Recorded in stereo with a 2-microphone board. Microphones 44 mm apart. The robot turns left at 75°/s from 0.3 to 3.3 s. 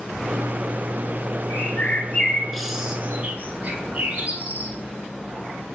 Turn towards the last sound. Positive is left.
turn(degrees=-40)  # may be behind; listen again after turning